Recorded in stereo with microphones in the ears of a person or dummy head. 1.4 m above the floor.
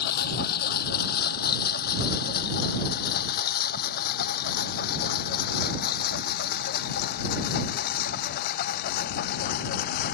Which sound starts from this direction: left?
A lawn mower, at 0.0 s.